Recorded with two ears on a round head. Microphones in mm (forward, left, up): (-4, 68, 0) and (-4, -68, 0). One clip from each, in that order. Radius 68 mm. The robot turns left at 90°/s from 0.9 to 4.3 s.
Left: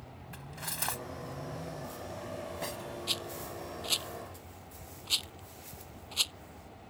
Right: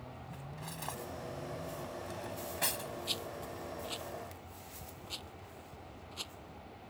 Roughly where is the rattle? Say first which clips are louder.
Left 5 dB; centre.